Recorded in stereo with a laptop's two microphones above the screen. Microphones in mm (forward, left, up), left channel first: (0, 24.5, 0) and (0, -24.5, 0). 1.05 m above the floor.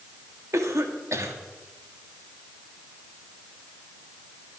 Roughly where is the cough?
Right.